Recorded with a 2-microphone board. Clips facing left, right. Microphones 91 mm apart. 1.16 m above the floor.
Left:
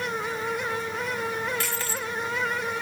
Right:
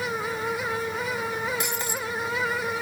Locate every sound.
1.6 s breaking glass: 20° right (ahead or behind)